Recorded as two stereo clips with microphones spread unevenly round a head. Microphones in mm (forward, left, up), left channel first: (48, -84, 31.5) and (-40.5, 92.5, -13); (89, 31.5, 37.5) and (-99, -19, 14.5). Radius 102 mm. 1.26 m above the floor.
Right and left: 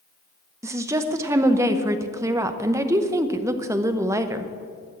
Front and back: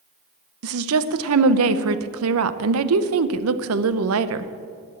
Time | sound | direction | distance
0.6 | a woman speaking | 165° right | 0.7 m